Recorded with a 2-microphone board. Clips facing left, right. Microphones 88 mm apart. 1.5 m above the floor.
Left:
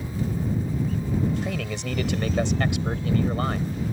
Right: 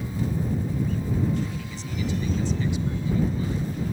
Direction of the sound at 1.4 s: 70° left (ahead or behind).